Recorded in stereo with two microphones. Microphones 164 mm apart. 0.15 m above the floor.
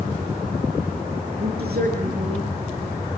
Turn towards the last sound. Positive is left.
turn(degrees=-75)  # may be behind; listen again after turning